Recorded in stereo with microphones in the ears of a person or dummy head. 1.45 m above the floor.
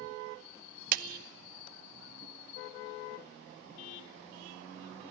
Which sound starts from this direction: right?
A clap, at 0.9 s.